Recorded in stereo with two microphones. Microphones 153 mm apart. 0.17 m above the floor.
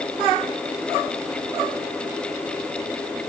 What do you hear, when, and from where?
Only background noise.